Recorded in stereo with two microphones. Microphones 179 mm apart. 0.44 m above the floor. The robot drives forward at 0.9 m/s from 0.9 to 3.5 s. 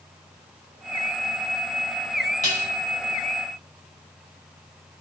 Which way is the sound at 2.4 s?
40° left (ahead or behind).